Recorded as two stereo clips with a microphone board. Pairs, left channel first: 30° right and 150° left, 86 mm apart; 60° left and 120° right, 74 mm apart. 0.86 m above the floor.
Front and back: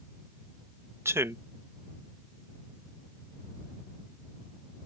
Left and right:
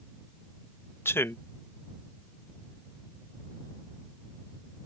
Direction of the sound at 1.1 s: 105° left.